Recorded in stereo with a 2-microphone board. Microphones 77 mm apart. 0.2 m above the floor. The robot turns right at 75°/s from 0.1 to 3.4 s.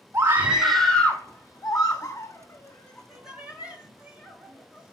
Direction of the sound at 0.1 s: 30° right (ahead or behind).